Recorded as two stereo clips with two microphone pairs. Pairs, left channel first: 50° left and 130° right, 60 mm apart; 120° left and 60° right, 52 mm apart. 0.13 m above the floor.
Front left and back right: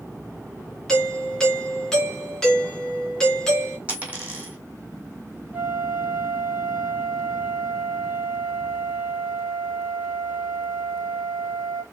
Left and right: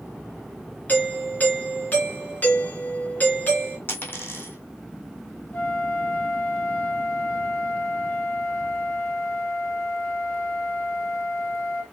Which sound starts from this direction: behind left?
A doorbell, at 0.9 s.